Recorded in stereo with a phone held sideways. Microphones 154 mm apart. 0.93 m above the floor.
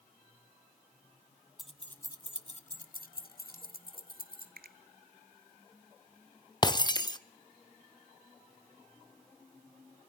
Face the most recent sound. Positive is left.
turn(degrees=30)  # may be behind; listen again after turning